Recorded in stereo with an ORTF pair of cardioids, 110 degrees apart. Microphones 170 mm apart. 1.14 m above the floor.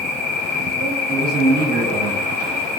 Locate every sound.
0.0 s an insect: 40° right, 0.9 m
1.1 s a man speaking: 65° right, 1.0 m